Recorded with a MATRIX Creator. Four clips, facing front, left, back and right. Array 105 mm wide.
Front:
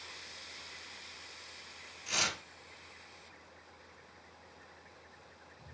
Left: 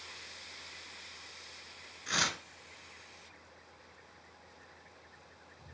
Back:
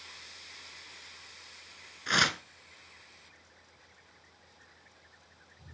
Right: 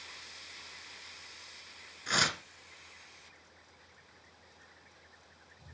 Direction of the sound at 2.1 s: 165° right.